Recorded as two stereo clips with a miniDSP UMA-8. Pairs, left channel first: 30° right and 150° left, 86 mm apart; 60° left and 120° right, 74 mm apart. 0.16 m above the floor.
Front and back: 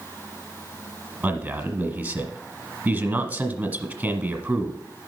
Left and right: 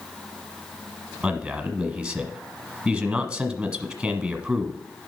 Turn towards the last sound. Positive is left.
turn(degrees=180)